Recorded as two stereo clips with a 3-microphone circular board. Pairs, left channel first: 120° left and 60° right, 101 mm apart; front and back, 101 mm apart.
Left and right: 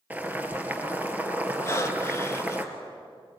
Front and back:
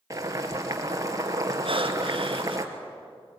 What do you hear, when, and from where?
0.1 s boiling: 130° right, 2.5 m
1.6 s breathing: straight behind, 1.5 m